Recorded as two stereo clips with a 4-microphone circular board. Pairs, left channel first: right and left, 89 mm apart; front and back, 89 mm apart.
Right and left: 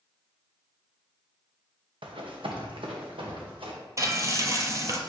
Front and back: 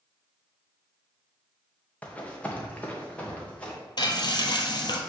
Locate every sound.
2.0 s running footsteps: 75° left, 1.6 m
4.0 s frying: 35° left, 0.9 m